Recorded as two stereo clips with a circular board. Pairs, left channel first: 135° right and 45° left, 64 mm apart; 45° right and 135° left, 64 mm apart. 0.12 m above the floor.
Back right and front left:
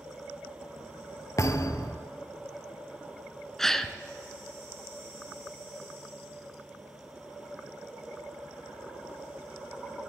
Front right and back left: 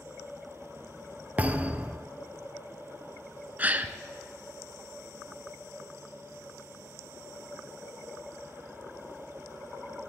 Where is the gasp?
150° left, 0.7 m.